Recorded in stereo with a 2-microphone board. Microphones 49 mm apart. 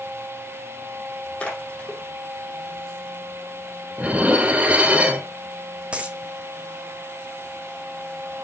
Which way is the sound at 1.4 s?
20° left (ahead or behind).